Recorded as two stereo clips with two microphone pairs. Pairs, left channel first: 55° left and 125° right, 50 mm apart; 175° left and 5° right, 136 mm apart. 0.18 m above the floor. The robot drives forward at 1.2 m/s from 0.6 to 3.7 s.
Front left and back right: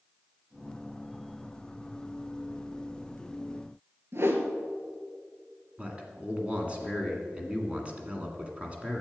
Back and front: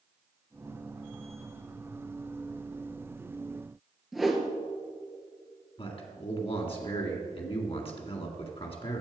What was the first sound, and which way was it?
A whoosh, 95° right.